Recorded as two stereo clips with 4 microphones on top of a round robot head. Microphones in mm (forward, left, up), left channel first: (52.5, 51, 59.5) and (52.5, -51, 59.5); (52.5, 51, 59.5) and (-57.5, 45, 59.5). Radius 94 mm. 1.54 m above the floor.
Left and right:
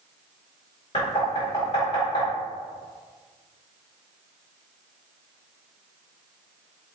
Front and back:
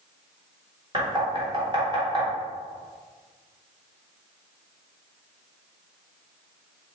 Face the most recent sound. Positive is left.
turn(degrees=135)